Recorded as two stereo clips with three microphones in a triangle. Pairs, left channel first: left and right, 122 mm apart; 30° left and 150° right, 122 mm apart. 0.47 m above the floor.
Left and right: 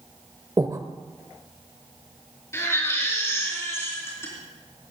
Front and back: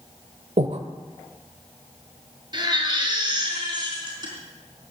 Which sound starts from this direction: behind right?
Breathing, at 0.6 s.